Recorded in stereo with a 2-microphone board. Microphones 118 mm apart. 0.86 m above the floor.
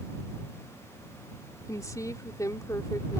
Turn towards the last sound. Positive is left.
turn(degrees=30)  # may be behind; listen again after turning